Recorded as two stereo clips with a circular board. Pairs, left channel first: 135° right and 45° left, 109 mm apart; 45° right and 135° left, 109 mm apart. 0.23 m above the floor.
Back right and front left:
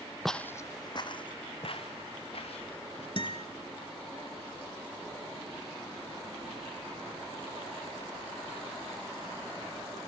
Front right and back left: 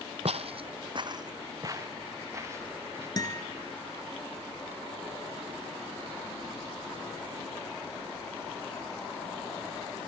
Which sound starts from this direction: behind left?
Footsteps, at 0.2 s.